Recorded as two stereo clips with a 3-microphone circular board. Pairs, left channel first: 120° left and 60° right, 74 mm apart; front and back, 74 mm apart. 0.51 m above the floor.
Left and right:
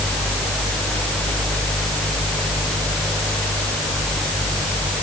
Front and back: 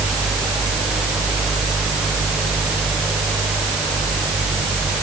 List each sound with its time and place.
Only background noise.